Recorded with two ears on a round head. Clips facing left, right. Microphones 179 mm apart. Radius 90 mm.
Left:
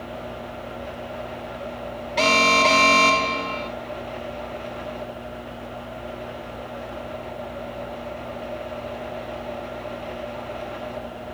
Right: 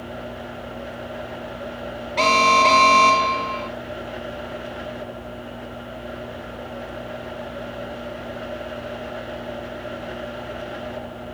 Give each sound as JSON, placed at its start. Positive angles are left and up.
{"t": 2.2, "sound": "an alarm", "side_deg": 10, "distance_m": 0.9}